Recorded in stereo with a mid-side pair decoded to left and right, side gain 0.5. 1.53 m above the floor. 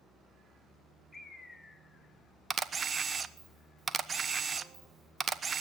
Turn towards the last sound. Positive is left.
turn(degrees=-40)